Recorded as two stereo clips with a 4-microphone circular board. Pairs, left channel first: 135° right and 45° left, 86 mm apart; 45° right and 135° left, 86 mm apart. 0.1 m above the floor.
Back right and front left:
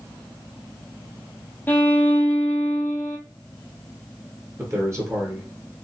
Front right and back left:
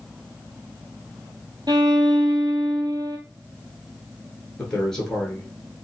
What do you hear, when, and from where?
1.7 s a violin: 160° left, 0.8 m
4.6 s a man speaking: 35° left, 1.7 m